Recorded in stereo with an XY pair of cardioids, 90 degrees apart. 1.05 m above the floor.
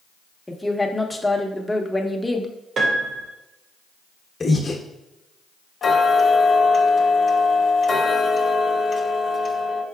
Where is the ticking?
45° left, 1.1 m.